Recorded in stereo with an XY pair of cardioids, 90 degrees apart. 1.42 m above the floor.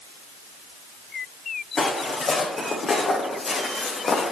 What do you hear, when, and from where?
1.8 s footsteps: 40° left, 5.5 m; by 4.3 s 60° left, 4.5 m